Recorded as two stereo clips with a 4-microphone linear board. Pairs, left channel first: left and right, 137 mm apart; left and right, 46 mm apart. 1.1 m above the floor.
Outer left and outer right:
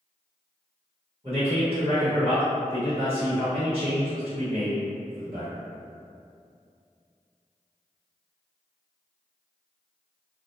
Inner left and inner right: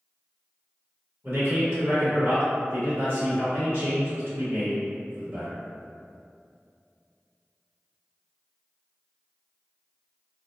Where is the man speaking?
40° right (ahead or behind), 1.1 m.